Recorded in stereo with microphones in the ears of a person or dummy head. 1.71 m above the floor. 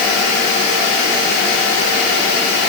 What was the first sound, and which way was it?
Only background noise.